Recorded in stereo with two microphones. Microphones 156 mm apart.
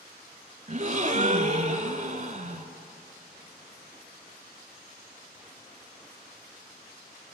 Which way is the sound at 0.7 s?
45° right (ahead or behind).